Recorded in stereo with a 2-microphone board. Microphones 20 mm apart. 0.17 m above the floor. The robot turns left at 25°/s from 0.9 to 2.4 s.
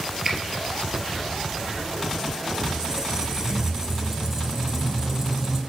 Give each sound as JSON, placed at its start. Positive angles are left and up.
{"t": 0.2, "sound": "a finger snap", "side_deg": -20, "distance_m": 2.5}
{"t": 2.6, "sound": "a squeak", "side_deg": -15, "distance_m": 1.1}